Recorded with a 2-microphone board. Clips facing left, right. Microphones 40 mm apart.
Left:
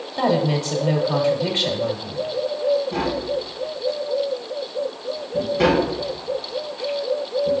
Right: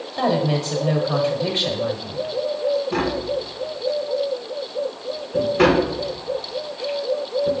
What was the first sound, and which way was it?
A woman speaking, 5° right (ahead or behind).